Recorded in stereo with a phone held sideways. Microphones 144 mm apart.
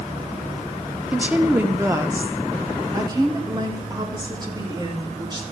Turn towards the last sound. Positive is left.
turn(degrees=-30)  # may be behind; listen again after turning